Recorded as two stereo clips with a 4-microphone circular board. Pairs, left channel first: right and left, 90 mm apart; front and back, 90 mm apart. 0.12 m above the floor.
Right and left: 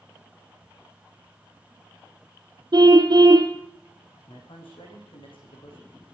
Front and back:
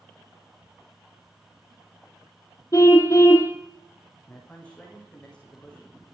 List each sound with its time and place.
2.7 s a car horn: 50° left, 2 m
4.3 s a man speaking: 75° right, 8.5 m